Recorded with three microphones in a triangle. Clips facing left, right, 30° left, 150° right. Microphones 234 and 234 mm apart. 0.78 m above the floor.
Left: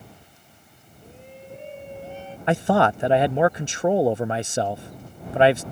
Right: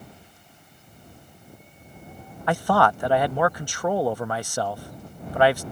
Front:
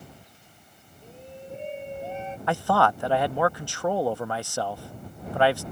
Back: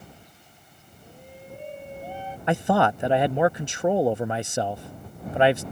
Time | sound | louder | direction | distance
1.0 | a shout | left 9 dB, front 3 dB | 100° left | ?
2.5 | a man speaking | left 2 dB, back 3 dB | 150° left | ?